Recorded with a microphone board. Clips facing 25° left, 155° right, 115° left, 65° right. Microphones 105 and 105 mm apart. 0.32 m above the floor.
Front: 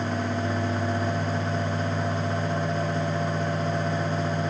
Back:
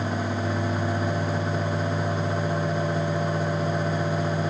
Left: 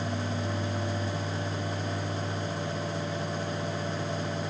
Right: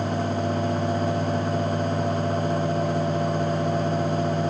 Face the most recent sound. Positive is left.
No sound to turn to.